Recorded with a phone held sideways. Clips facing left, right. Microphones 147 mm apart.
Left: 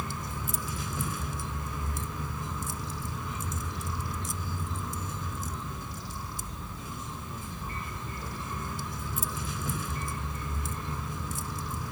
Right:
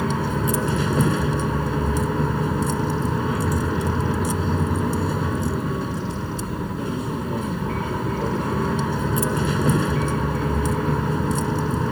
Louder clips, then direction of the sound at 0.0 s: Right 15 dB; 75° right (ahead or behind).